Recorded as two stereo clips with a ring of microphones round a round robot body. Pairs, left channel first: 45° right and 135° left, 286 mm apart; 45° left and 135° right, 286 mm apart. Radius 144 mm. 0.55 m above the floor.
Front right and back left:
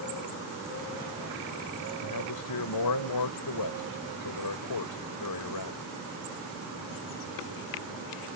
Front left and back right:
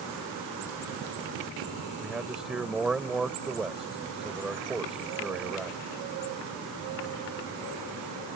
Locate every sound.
2.0 s a man speaking: 45° right